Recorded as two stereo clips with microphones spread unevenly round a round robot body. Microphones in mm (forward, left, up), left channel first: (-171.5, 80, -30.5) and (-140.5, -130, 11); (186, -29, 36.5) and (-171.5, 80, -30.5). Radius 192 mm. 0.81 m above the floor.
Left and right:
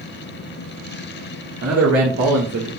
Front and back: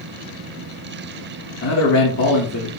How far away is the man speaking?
About 2 m.